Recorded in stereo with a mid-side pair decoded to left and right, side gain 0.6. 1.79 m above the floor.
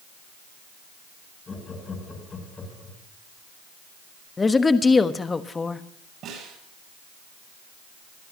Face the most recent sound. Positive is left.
turn(degrees=-55)